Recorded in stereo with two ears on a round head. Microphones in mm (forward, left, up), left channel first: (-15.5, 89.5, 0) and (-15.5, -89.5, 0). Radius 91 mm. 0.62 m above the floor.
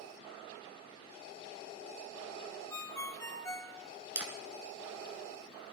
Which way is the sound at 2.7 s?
15° left (ahead or behind).